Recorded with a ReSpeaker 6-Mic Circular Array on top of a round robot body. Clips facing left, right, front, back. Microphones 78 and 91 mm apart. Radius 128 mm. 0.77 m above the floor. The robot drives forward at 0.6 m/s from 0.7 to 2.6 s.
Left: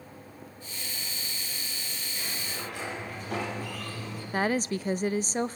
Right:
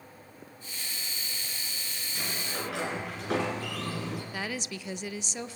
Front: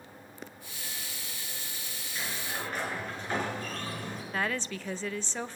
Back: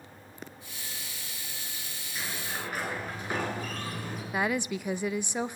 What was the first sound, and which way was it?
A sliding door, 95° right.